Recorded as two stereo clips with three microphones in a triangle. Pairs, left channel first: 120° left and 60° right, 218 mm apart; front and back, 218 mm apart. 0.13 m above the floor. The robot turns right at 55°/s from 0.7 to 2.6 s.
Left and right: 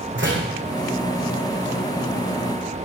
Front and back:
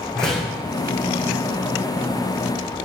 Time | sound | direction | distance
0.1 | a door slam | 85° right | 5 m